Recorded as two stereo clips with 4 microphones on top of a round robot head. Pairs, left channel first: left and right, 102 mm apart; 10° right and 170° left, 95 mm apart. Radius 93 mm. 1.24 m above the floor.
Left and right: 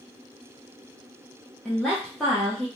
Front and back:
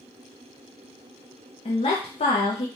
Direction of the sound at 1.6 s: 5° left.